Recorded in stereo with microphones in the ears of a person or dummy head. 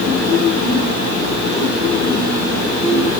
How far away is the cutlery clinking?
No cutlery clinking in this recording.